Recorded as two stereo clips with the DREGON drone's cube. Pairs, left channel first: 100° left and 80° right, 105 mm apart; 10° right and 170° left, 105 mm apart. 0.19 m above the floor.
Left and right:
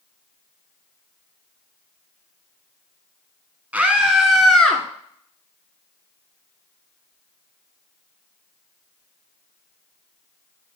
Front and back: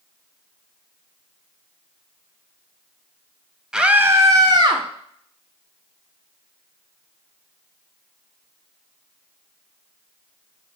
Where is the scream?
120° right, 1.0 m; by 4.8 s straight behind, 1.5 m.